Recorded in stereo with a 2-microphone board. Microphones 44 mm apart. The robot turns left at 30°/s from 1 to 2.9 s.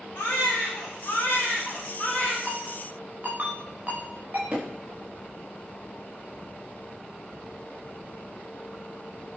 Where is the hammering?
25° right (ahead or behind), 9.5 m.